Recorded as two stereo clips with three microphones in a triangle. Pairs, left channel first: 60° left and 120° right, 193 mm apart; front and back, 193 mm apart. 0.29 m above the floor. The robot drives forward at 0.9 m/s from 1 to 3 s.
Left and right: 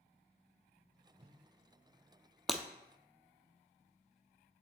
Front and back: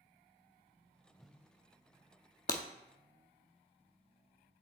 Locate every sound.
1.2 s a whoosh: 80° right, 0.5 m; by 1.4 s 115° right, 0.5 m
2.5 s breaking glass: 30° right, 0.7 m; by 2.6 s 35° right, 0.6 m